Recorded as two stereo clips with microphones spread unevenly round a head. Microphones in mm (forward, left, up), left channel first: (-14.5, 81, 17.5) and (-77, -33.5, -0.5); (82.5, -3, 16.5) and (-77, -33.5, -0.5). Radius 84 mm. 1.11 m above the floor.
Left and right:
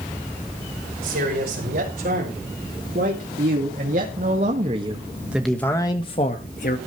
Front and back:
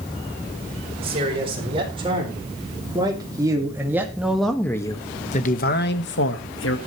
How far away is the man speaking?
About 5.5 m.